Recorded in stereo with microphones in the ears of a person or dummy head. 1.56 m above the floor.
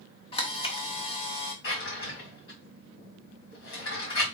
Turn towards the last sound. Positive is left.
turn(degrees=70)  # may be behind; listen again after turning